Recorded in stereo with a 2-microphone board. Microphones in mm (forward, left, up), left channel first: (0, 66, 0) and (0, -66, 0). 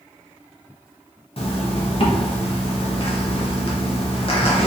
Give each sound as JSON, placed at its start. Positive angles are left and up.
{"t": 1.4, "sound": "a zipper", "side_deg": 45, "distance_m": 0.5}